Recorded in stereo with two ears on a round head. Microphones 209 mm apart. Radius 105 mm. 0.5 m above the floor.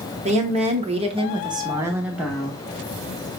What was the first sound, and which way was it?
A woman speaking, 25° right (ahead or behind).